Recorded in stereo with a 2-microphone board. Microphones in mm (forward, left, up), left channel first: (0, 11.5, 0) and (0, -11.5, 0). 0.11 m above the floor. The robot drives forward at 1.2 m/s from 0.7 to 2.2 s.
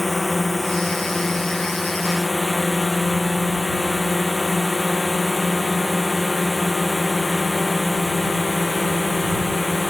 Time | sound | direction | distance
0.0 | a drone | 5° left (ahead or behind) | ?